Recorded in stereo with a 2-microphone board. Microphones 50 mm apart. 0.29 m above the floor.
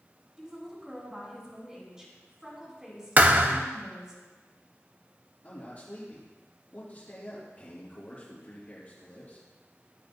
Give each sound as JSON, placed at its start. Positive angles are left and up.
{"t": 0.4, "sound": "a woman speaking", "side_deg": -10, "distance_m": 3.0}
{"t": 3.2, "sound": "a thud", "side_deg": -35, "distance_m": 0.6}
{"t": 5.4, "sound": "a man speaking", "side_deg": 35, "distance_m": 5.0}